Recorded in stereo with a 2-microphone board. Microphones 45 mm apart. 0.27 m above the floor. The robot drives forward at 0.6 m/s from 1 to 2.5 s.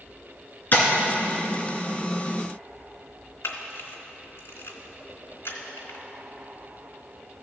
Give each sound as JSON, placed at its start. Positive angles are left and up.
{"t": 0.7, "sound": "tapping", "side_deg": 45, "distance_m": 2.0}
{"t": 3.4, "sound": "a camera shutter", "side_deg": 75, "distance_m": 1.2}